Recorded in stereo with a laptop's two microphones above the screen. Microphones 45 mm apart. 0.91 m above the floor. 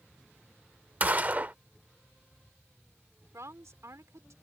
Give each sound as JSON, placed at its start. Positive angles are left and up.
{"t": 1.0, "sound": "a gunshot", "side_deg": -40}
{"t": 3.3, "sound": "a woman speaking", "side_deg": -80}